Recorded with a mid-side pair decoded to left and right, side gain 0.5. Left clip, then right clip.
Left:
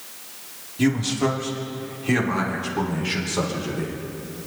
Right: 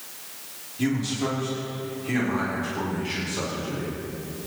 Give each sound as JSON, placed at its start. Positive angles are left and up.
{"t": 0.8, "sound": "a man speaking", "azimuth_deg": 35, "distance_m": 3.0}